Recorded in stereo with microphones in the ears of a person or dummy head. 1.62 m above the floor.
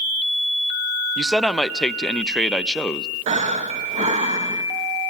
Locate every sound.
1.2 s a man speaking: 5° left (ahead or behind), 0.5 m
3.3 s breathing: 30° right (ahead or behind), 1.1 m